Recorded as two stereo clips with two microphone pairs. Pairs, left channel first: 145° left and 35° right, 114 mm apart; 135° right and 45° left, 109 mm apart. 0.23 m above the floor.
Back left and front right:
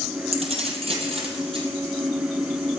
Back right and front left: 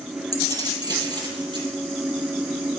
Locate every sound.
0.3 s keys jangling: 10° right, 4 m; by 1.7 s straight ahead, 4.5 m